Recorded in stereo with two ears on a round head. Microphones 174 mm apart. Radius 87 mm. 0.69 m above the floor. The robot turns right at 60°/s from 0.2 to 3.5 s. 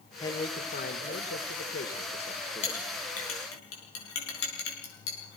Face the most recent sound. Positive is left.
turn(degrees=85)